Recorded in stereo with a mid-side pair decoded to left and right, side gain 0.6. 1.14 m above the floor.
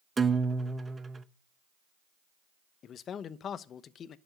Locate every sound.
0.2 s a guitar: 20° right, 0.9 m
2.8 s a man speaking: 45° left, 0.9 m